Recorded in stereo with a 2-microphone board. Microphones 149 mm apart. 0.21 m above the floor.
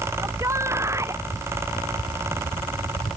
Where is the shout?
20° right (ahead or behind).